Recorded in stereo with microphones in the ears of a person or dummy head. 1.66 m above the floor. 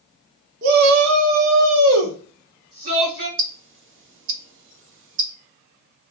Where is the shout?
45° right (ahead or behind), 0.7 m; by 3.3 s 30° right (ahead or behind), 1.1 m.